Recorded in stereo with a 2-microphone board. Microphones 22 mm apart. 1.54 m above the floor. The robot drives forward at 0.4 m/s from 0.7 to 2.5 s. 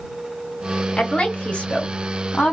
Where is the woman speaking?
60° left (ahead or behind), 1.0 m; by 2.5 s 70° left (ahead or behind), 0.9 m.